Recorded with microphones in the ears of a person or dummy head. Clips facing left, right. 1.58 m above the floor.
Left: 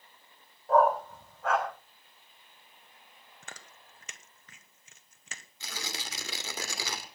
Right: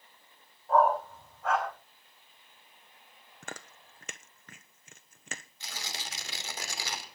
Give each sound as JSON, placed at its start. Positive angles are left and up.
{"t": 0.7, "sound": "a dog barking", "side_deg": 60, "distance_m": 4.5}
{"t": 3.4, "sound": "chewing", "side_deg": -45, "distance_m": 0.9}
{"t": 5.6, "sound": "tearing paper", "side_deg": 70, "distance_m": 2.5}